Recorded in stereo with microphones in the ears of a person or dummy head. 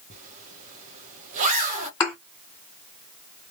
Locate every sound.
0.1 s a zipper: 35° right (ahead or behind), 1.2 m
2.0 s a thud: 15° left (ahead or behind), 1.9 m